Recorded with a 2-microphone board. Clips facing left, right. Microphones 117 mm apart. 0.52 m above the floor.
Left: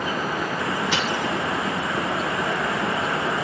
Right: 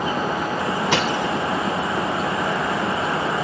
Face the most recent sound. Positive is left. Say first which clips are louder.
# right 4 dB
turn(degrees=-65)  # may be behind; listen again after turning